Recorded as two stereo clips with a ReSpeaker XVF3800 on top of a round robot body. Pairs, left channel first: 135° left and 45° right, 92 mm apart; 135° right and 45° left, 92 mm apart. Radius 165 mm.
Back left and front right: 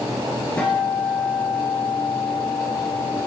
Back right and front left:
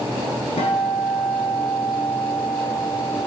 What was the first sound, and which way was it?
A guitar, 150° right.